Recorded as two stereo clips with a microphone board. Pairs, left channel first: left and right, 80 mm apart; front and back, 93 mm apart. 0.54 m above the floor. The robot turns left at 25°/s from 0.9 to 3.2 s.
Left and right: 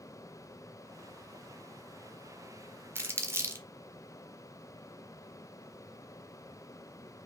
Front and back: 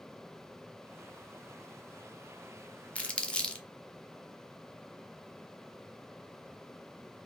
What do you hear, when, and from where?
3.0 s crumpling: 65° right, 1.0 m; by 3.6 s 70° right, 1.0 m